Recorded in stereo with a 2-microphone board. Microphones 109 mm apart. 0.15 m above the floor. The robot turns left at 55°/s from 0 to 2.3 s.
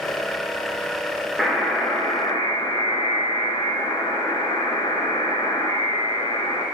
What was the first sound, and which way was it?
A buzzer, straight behind.